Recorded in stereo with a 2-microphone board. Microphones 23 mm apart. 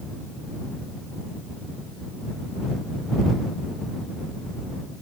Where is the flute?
No flute in this recording.